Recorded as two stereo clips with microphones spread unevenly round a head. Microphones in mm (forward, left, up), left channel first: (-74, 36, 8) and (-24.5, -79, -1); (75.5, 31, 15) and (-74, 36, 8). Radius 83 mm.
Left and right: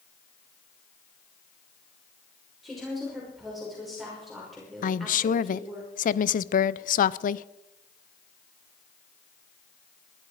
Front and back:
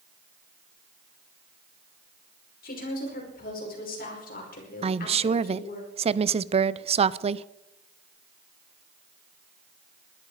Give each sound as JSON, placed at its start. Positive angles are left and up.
{"t": 2.6, "sound": "a woman speaking", "azimuth_deg": 25, "distance_m": 5.5}
{"t": 4.8, "sound": "a woman speaking", "azimuth_deg": 130, "distance_m": 0.6}